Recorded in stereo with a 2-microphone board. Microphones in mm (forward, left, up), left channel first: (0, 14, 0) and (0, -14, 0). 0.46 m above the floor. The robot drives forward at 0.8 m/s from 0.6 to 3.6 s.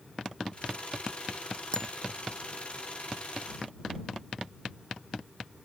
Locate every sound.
1.7 s a bicycle bell: 25° left (ahead or behind)